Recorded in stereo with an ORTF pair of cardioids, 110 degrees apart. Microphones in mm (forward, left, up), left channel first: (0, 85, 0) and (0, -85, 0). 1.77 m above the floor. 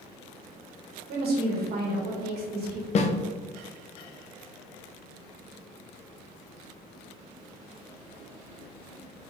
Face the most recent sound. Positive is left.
turn(degrees=40)